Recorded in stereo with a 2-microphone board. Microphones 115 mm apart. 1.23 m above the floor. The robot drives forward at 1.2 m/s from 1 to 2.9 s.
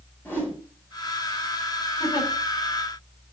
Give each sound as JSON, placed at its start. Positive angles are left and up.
{"t": 0.2, "sound": "a whoosh", "side_deg": 15, "distance_m": 7.0}
{"t": 2.0, "sound": "a giggle", "side_deg": 35, "distance_m": 6.0}